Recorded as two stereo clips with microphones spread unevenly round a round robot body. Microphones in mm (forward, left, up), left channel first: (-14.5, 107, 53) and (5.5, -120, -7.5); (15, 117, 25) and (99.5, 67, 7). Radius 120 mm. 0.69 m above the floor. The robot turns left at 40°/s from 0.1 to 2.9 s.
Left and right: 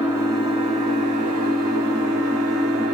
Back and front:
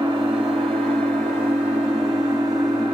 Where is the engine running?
Straight ahead, 1.4 m; by 2.9 s 115° right, 1.4 m.